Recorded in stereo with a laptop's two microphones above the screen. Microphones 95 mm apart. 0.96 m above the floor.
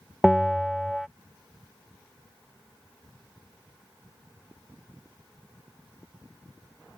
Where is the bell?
5° right (ahead or behind).